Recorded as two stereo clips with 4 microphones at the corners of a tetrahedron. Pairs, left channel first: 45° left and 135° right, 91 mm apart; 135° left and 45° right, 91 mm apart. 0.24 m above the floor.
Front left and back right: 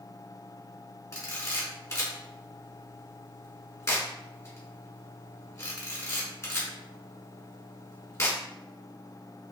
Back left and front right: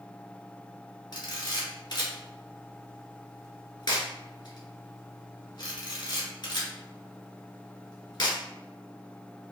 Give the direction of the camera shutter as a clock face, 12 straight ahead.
9 o'clock.